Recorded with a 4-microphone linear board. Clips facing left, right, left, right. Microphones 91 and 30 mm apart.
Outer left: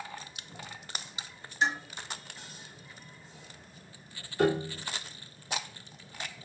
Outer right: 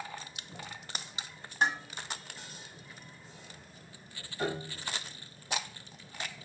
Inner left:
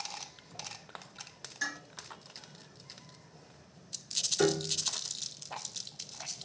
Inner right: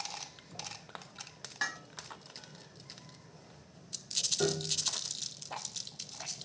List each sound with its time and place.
1.6 s dishes clattering: 50° right (ahead or behind), 1.3 m
4.4 s a piano: 80° left, 0.7 m